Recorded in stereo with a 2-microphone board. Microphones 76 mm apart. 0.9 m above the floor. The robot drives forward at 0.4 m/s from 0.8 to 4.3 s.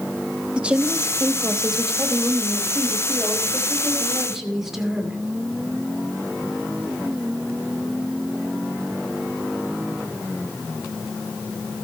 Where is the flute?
No flute in this recording.